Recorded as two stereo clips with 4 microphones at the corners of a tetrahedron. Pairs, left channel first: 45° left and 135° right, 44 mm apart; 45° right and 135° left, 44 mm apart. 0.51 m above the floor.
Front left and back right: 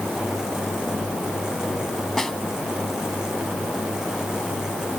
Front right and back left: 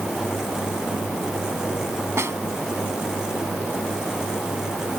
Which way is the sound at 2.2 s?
125° left.